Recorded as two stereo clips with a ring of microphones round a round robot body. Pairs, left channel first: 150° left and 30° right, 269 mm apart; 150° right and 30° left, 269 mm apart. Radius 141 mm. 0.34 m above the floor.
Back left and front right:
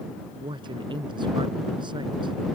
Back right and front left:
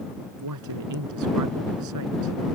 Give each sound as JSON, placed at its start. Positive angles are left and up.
{"t": 0.4, "sound": "a man speaking", "azimuth_deg": 45}